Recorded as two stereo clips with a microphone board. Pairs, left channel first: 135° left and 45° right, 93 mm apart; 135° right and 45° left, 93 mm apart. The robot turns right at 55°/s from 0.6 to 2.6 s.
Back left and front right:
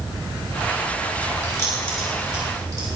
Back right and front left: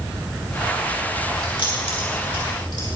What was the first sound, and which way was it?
Keys jangling, 170° right.